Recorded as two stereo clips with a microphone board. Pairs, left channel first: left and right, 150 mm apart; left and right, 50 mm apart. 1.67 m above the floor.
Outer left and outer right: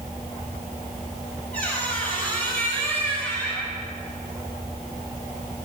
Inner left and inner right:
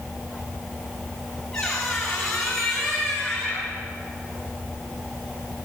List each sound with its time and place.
1.5 s a squeak: 10° left (ahead or behind), 7.5 m